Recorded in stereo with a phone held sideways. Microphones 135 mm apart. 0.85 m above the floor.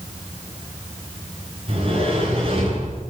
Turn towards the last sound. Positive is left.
turn(degrees=-45)  # may be behind; listen again after turning